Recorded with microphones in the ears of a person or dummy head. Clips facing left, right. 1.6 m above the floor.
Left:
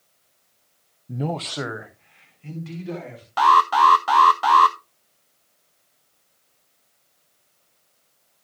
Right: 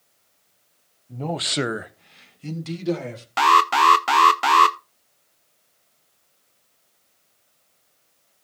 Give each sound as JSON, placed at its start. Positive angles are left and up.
{"t": 1.1, "sound": "a man speaking", "side_deg": 30, "distance_m": 0.6}
{"t": 3.4, "sound": "an alarm", "side_deg": -30, "distance_m": 0.6}